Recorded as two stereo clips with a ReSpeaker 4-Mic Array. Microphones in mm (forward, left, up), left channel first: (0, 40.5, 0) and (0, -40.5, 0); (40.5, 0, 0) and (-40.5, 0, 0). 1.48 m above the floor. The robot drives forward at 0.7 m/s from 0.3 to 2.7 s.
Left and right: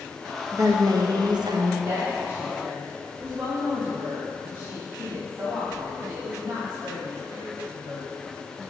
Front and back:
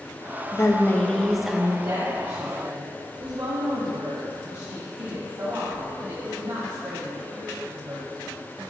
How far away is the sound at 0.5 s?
About 1.0 m.